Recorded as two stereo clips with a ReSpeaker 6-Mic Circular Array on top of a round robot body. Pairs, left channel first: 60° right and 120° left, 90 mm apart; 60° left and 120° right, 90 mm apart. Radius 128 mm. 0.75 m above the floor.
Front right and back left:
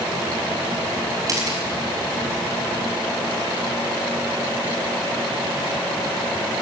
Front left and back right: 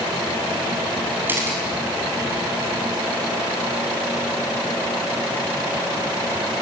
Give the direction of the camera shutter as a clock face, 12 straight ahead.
6 o'clock.